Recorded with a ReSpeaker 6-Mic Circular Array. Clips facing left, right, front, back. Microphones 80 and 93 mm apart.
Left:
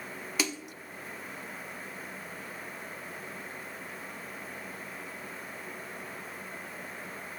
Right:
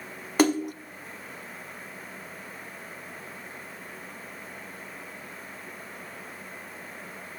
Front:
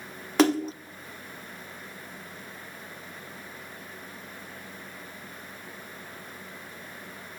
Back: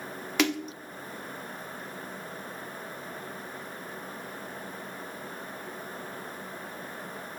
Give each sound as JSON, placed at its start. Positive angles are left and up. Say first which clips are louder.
{"t": 0.4, "sound": "a splash", "louder": "right 13 dB, front 6 dB", "azimuth_deg": -50, "distance_m": 0.8}